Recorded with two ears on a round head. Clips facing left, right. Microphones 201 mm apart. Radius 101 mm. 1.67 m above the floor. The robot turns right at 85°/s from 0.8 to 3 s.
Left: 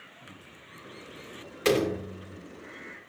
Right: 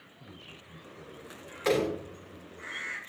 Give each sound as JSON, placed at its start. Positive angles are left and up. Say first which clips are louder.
{"t": 0.2, "sound": "a man speaking", "louder": "right 2 dB", "azimuth_deg": -75, "distance_m": 5.0}
{"t": 1.6, "sound": "a door slam", "louder": "left 2 dB", "azimuth_deg": 45, "distance_m": 3.0}